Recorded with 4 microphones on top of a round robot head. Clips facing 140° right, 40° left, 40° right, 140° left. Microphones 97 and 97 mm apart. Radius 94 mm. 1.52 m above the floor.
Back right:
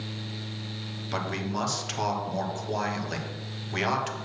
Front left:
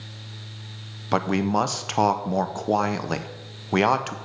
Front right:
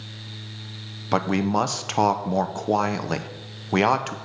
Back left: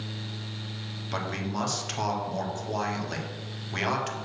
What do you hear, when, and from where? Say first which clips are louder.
1.1 s a man speaking: front left 9 dB, front right 11 dB; straight ahead, 0.6 m